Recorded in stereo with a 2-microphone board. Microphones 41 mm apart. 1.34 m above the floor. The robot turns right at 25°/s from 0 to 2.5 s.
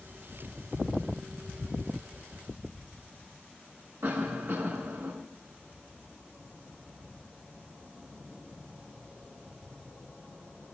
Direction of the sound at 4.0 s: 80° right.